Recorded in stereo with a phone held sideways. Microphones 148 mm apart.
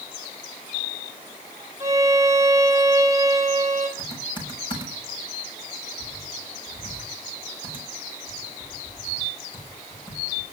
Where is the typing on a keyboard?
35° left (ahead or behind), 6.5 m.